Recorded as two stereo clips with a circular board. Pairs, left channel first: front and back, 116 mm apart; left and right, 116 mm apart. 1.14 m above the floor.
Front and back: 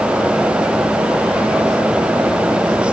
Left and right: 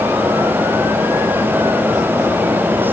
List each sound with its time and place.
Only background noise.